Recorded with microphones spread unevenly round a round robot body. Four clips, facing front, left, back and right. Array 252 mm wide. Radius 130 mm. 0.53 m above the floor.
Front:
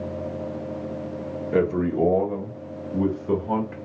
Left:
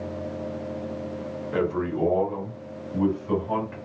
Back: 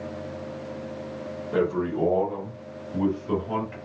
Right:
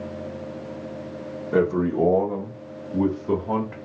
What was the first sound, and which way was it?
A man speaking, 45° right.